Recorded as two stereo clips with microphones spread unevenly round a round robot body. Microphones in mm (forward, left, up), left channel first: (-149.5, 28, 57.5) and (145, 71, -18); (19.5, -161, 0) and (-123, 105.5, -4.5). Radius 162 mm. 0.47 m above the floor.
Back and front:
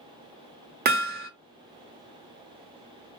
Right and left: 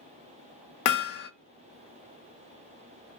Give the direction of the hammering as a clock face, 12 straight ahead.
1 o'clock.